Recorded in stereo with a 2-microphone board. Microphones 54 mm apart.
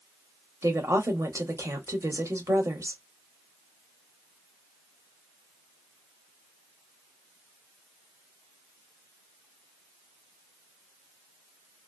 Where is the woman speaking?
65° right (ahead or behind), 1.6 m.